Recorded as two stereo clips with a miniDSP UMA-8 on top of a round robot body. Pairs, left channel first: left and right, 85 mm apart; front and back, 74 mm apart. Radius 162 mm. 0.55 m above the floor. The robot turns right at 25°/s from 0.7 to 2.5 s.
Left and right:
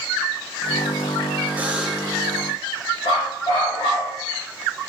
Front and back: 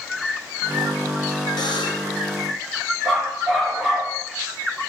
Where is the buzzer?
15° right, 1.9 m; by 2.2 s straight ahead, 1.9 m.